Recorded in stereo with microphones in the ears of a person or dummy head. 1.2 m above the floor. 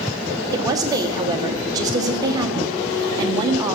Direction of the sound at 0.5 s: 20° right (ahead or behind).